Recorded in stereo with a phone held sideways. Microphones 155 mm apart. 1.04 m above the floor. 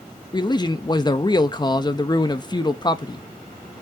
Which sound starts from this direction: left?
A man speaking, at 0.3 s.